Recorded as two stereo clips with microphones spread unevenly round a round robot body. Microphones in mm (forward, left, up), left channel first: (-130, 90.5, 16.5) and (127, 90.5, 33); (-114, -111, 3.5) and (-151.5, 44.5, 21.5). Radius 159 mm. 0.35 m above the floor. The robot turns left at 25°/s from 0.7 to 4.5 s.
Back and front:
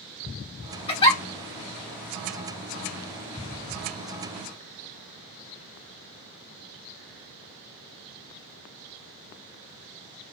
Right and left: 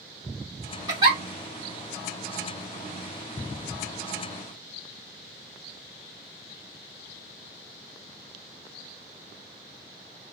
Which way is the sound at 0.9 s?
150° left.